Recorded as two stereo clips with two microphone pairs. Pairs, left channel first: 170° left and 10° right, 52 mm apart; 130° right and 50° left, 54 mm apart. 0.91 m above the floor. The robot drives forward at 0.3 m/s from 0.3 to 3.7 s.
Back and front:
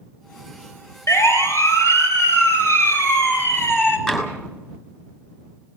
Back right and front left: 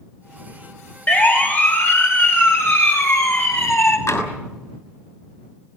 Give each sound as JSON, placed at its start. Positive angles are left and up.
{"t": 1.1, "sound": "a siren", "azimuth_deg": 180, "distance_m": 3.0}
{"t": 4.1, "sound": "tapping", "azimuth_deg": -115, "distance_m": 5.5}